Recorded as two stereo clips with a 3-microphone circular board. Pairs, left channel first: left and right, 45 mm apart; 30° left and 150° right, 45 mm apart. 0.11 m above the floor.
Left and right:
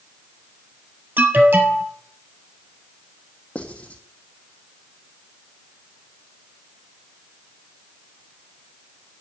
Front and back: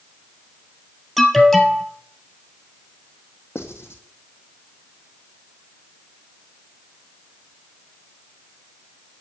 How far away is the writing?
About 2.5 m.